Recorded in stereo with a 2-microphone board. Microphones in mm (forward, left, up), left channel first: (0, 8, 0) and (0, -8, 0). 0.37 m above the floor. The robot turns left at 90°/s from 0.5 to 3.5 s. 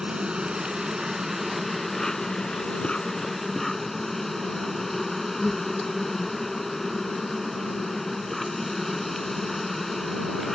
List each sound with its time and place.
0.0 s an insect: 75° right; by 10.6 s 15° left